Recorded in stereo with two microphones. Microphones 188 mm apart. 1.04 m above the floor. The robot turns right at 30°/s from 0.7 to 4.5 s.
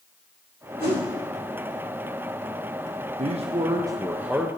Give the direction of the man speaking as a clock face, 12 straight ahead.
1 o'clock.